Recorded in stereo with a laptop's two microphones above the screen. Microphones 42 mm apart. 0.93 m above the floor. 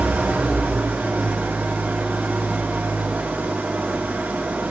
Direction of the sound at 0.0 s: 50° right (ahead or behind).